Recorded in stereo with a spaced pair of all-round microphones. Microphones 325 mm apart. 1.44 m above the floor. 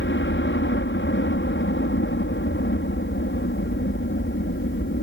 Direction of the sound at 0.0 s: 35° left (ahead or behind).